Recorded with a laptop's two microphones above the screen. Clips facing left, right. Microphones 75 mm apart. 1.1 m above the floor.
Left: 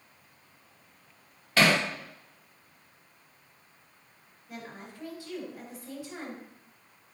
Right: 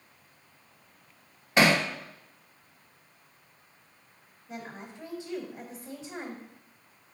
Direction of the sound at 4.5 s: 20° right (ahead or behind).